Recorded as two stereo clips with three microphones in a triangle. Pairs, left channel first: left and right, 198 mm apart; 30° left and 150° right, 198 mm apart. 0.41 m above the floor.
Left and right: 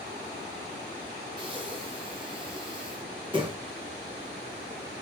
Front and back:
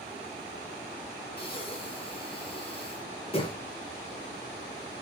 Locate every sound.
1.4 s breathing: 30° right, 0.8 m